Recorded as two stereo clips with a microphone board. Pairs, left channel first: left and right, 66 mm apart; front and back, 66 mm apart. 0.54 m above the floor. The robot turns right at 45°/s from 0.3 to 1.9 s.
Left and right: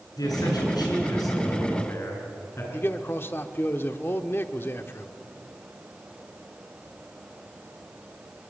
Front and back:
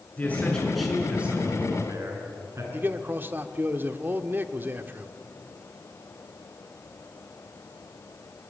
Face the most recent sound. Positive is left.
turn(degrees=135)